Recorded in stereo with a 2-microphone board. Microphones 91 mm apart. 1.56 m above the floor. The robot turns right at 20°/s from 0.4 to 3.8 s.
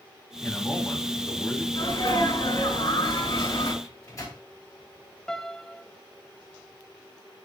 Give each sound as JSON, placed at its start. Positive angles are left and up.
{"t": 0.4, "sound": "a man speaking", "side_deg": 15, "distance_m": 2.0}
{"t": 1.7, "sound": "a sneeze", "azimuth_deg": 90, "distance_m": 5.5}
{"t": 3.8, "sound": "a microwave", "side_deg": 40, "distance_m": 3.0}
{"t": 5.3, "sound": "a piano", "side_deg": 5, "distance_m": 0.5}